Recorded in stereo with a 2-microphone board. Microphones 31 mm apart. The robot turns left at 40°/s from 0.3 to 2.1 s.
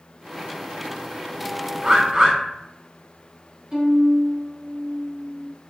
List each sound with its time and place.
1.8 s a bird: 20° right (ahead or behind), 0.9 m; by 2.4 s 25° right (ahead or behind), 0.9 m
3.7 s a violin: 20° right (ahead or behind), 1.6 m